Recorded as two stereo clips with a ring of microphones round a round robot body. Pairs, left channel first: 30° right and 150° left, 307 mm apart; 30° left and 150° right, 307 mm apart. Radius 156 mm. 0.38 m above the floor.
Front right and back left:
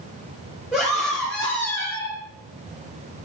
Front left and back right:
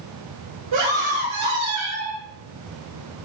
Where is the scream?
125° right, 6.5 m; by 2.2 s 105° right, 5.5 m.